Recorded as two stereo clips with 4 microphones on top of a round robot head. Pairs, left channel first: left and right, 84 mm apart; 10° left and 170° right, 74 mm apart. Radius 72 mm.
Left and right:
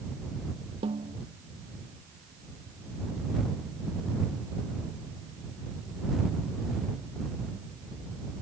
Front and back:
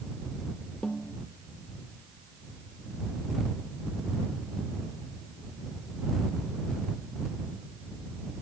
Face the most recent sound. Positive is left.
turn(degrees=-70)